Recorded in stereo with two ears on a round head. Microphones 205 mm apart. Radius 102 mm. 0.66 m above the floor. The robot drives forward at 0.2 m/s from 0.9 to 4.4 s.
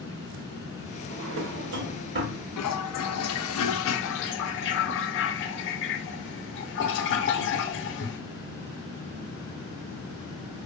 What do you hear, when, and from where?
1.1 s a drawer: 60° right (ahead or behind), 0.7 m; by 2.4 s 45° right (ahead or behind), 0.9 m
2.6 s a toilet flushing: 80° left, 0.6 m; by 8.2 s 55° left (ahead or behind), 0.8 m